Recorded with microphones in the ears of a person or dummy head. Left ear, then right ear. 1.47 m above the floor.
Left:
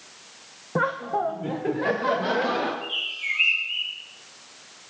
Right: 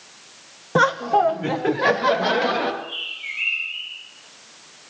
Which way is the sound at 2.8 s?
45° left (ahead or behind).